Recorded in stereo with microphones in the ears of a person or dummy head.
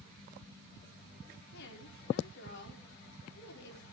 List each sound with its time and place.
1.5 s a woman speaking: 70° left (ahead or behind), 5 m